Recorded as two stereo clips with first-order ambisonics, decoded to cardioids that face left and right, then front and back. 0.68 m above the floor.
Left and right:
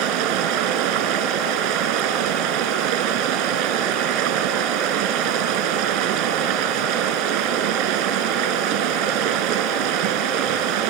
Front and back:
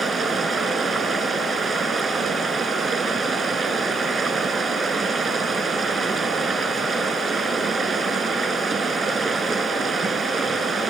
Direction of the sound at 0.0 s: 105° right.